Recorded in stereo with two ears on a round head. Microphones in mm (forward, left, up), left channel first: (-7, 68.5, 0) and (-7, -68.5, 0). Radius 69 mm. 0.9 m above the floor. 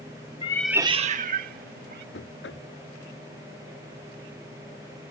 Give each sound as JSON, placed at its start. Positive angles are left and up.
{"t": 0.4, "sound": "a cat meowing", "side_deg": 35}
{"t": 2.1, "sound": "knocking", "side_deg": 85}